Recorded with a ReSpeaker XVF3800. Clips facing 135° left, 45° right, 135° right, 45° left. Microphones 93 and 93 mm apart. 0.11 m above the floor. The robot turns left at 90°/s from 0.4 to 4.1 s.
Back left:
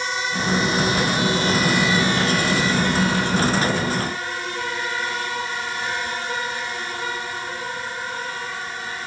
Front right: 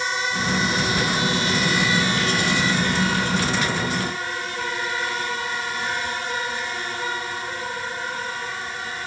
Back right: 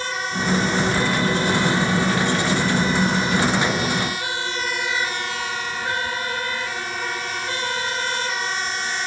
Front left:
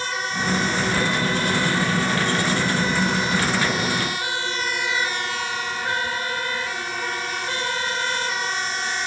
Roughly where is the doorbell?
No doorbell in this recording.